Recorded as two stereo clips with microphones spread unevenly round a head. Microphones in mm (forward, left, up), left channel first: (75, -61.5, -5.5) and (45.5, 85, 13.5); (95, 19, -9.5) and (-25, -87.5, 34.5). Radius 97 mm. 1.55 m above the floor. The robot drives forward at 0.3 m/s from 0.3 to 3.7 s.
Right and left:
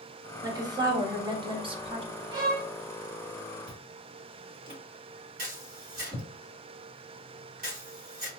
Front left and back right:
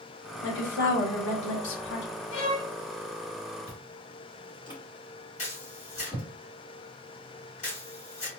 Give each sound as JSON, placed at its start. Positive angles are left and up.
{"t": 0.4, "sound": "a woman speaking", "azimuth_deg": 35, "distance_m": 1.4}
{"t": 2.3, "sound": "a violin", "azimuth_deg": 50, "distance_m": 1.1}
{"t": 3.7, "sound": "chewing", "azimuth_deg": 115, "distance_m": 1.6}
{"t": 5.4, "sound": "a camera shutter", "azimuth_deg": 95, "distance_m": 2.0}